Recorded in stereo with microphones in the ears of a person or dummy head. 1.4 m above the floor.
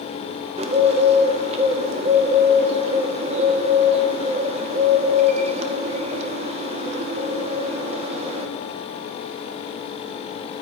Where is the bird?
30° right (ahead or behind), 0.5 m.